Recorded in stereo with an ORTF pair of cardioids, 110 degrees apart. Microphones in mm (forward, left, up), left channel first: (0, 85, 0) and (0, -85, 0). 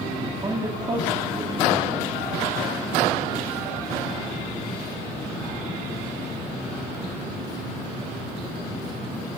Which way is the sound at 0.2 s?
25° right.